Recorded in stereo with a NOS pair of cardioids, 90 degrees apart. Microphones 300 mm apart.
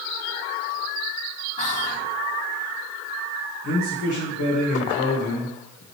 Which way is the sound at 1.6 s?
25° left.